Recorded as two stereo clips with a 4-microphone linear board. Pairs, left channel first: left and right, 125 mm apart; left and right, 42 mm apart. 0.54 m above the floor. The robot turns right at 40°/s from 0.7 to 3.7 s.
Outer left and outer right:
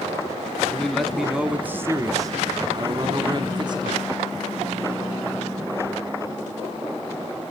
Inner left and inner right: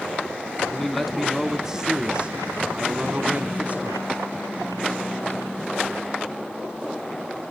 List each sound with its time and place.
0.7 s a man speaking: 165° left, 1.2 m; by 4.0 s 75° right, 1.2 m